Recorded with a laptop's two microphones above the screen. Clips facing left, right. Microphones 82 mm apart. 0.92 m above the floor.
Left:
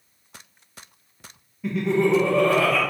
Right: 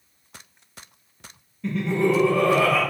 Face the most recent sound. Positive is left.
turn(degrees=-10)  # may be behind; listen again after turning